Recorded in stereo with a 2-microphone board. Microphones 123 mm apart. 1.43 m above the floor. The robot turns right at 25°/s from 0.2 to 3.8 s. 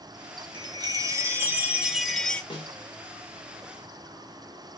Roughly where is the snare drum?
Left.